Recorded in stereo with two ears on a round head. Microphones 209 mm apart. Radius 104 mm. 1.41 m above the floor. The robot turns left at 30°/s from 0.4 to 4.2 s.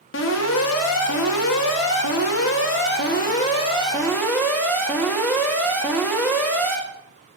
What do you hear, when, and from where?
0.1 s an alarm: 125° left, 2.5 m; by 6.8 s 10° left, 2.5 m